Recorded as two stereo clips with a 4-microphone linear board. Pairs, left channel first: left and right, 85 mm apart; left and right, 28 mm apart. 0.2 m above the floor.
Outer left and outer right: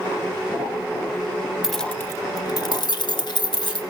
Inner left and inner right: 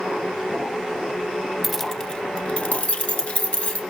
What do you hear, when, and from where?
1.6 s keys jangling: 5° right (ahead or behind), 0.7 m; by 3.8 s 60° left (ahead or behind), 2.5 m